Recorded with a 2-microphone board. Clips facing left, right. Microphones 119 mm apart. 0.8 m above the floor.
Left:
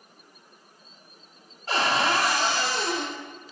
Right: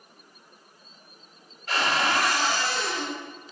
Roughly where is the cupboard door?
Left.